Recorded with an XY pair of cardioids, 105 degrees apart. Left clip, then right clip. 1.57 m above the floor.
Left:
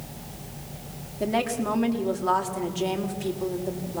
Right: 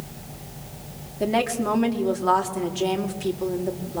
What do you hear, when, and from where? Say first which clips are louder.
1.2 s a woman speaking: right 3 dB; 15° right, 3.5 m